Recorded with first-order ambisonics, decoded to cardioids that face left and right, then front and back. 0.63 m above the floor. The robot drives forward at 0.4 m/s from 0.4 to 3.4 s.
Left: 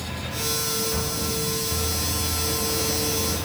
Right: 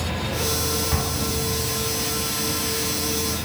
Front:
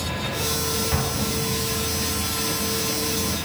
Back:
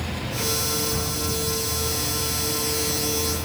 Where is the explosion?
60° right, 5 m; by 2.3 s 65° right, 4.5 m.